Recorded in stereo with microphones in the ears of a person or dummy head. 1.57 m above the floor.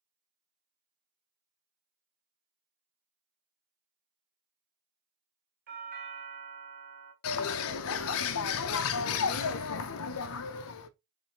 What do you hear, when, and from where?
5.7 s a doorbell: 45° right (ahead or behind), 1.2 m
7.2 s a bird: 75° left (ahead or behind), 0.5 m